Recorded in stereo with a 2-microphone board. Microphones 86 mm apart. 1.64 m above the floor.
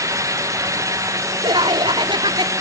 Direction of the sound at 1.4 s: 85° right.